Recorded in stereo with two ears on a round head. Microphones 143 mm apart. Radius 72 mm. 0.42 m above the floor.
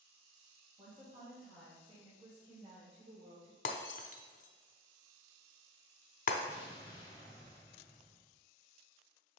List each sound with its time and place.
0.8 s a woman speaking: 20° right (ahead or behind), 2.5 m; by 3.5 s 35° right (ahead or behind), 1.4 m
3.6 s breaking glass: 50° left (ahead or behind), 0.8 m
6.5 s an explosion: 30° left (ahead or behind), 2.5 m